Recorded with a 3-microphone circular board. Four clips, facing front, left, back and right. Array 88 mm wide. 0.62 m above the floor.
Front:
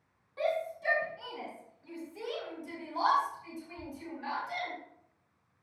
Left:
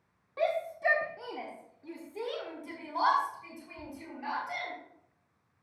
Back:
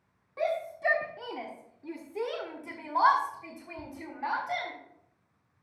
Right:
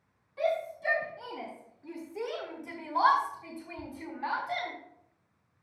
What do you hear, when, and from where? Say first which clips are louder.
0.4 s a shout: even, back 2 dB; 120° left, 1.3 m; by 4.7 s 150° right, 3.5 m